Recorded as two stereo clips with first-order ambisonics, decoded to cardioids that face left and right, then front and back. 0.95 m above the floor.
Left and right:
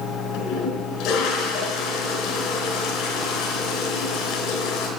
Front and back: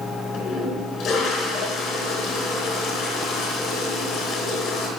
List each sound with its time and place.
0.3 s a toilet flushing: 55° left, 4 m